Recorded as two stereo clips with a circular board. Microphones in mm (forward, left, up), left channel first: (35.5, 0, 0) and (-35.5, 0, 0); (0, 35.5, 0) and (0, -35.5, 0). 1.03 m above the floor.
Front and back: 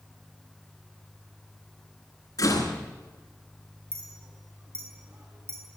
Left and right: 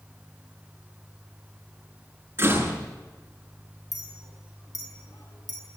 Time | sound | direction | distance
2.4 | a door slam | 35° right | 9 m
3.9 | a clink | 125° left | 6 m